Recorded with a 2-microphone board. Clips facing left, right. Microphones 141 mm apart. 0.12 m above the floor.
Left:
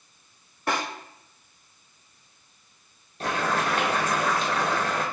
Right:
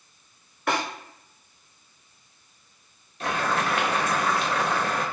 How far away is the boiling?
About 0.9 m.